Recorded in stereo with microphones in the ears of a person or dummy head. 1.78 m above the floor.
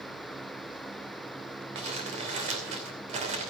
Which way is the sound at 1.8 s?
40° right (ahead or behind).